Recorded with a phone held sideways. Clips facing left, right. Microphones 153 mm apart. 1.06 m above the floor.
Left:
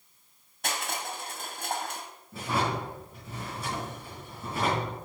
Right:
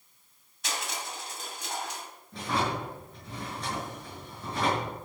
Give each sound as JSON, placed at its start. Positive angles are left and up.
{"t": 0.6, "sound": "crushing", "side_deg": 60, "distance_m": 2.0}
{"t": 2.3, "sound": "a drawer", "side_deg": 10, "distance_m": 8.0}